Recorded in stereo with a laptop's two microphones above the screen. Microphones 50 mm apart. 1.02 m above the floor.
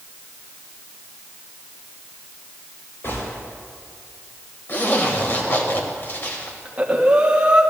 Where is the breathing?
25° right (ahead or behind), 1.5 m.